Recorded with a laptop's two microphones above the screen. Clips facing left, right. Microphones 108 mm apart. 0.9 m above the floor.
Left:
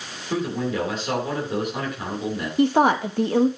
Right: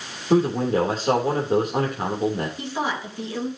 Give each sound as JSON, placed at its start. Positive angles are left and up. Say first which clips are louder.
{"t": 0.3, "sound": "a man speaking", "louder": "right 6 dB", "side_deg": -40, "distance_m": 3.0}
{"t": 2.6, "sound": "a woman speaking", "louder": "left 10 dB", "side_deg": 60, "distance_m": 1.2}